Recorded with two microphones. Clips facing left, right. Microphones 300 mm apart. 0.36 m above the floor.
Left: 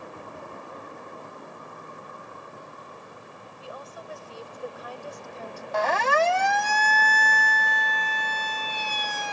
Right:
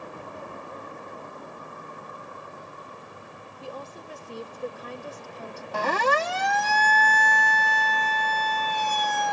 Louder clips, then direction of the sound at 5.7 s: Left 1 dB; 40° right (ahead or behind).